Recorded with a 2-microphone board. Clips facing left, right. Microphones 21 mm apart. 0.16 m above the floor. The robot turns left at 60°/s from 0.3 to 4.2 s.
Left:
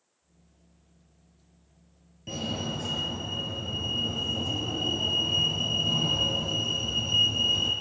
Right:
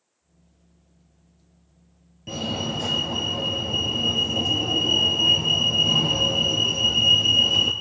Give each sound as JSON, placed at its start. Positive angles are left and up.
{"t": 2.3, "sound": "a fire alarm", "azimuth_deg": -10, "distance_m": 5.0}